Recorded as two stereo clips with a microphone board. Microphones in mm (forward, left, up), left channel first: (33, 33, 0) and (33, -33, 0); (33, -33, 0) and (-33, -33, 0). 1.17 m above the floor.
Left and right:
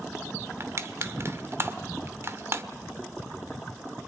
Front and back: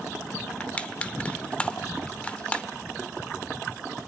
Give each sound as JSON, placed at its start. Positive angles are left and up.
{"t": 0.6, "sound": "crushing", "azimuth_deg": -60, "distance_m": 1.0}